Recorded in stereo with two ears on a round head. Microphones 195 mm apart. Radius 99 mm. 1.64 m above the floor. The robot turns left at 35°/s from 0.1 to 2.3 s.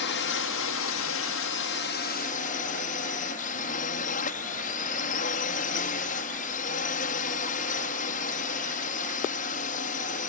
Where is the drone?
115° left; by 10.3 s 40° left.